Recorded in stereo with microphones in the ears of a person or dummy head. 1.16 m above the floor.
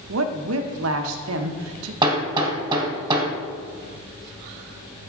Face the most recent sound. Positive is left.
turn(degrees=-25)  # may be behind; listen again after turning